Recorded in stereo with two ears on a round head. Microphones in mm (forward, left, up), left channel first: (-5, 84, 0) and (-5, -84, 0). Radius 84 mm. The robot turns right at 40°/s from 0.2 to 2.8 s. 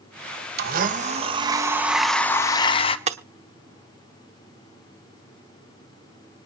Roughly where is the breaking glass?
Right.